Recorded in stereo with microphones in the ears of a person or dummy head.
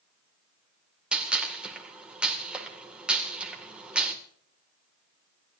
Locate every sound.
1.1 s a gunshot: 5° right (ahead or behind), 2.0 m